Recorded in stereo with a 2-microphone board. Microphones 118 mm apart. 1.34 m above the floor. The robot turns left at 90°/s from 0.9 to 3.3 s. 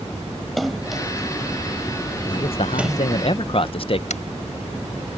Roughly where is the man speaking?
Behind left.